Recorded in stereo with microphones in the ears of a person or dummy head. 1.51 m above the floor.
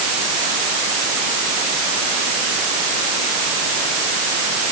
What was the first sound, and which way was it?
Only background noise.